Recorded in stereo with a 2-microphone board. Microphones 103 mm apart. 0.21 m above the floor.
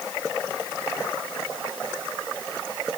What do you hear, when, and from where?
Only background noise.